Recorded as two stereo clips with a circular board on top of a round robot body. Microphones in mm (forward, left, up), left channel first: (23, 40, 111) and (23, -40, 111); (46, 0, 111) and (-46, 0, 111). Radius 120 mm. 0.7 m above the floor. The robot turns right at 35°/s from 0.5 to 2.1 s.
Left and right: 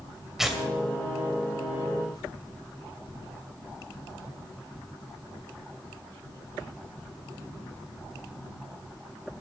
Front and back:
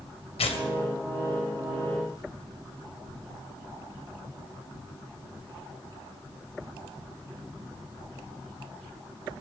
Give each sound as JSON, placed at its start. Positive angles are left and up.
{"t": 0.4, "sound": "tearing paper", "azimuth_deg": -5, "distance_m": 2.5}